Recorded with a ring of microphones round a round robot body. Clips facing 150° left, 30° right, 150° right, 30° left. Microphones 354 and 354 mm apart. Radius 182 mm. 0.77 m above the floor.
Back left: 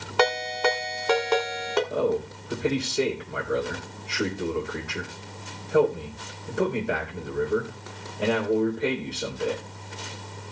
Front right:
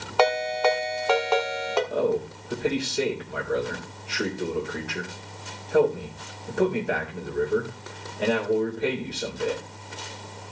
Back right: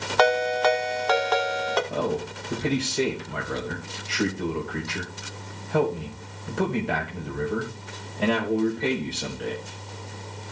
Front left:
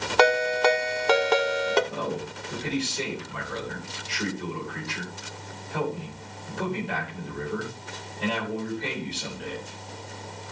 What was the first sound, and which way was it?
A ringtone, 85° left.